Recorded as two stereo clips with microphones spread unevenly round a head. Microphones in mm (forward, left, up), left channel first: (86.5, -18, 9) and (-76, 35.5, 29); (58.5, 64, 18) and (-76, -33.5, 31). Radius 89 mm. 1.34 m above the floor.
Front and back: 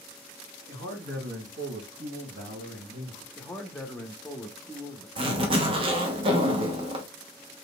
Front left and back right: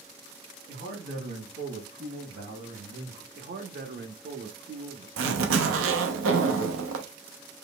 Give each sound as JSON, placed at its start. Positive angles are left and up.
{"t": 0.7, "sound": "a man speaking", "azimuth_deg": -170, "distance_m": 3.0}
{"t": 3.3, "sound": "a man speaking", "azimuth_deg": -100, "distance_m": 0.9}
{"t": 5.2, "sound": "a zipper", "azimuth_deg": -135, "distance_m": 0.9}